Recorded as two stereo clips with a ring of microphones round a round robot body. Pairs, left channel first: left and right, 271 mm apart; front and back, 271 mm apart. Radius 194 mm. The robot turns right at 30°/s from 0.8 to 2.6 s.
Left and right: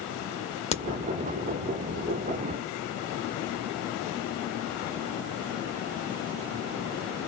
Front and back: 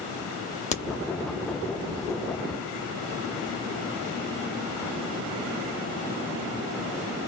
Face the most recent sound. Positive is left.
turn(degrees=95)